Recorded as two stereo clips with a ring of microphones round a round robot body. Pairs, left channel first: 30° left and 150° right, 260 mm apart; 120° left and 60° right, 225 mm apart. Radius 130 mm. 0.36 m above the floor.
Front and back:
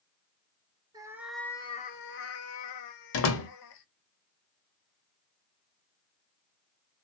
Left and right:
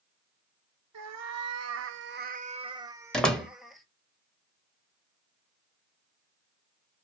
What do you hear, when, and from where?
0.9 s a cat meowing: 75° right, 0.7 m; by 3.9 s 30° left, 1.2 m
3.1 s a door slam: 35° left, 1.2 m